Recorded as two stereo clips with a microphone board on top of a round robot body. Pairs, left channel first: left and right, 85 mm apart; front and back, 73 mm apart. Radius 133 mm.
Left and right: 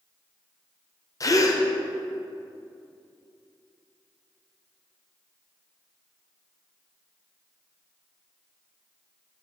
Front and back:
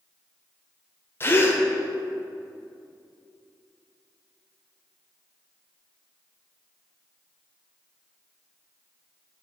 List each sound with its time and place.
1.2 s a gasp: 50° left, 0.7 m